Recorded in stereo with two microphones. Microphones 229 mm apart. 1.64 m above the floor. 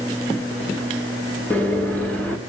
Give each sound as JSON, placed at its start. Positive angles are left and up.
{"t": 1.5, "sound": "a microwave", "side_deg": 5, "distance_m": 2.5}